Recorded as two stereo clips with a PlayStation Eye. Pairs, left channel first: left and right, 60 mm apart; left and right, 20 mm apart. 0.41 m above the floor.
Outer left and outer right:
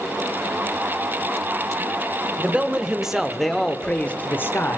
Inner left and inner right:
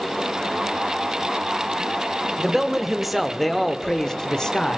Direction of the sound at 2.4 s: 20° right (ahead or behind).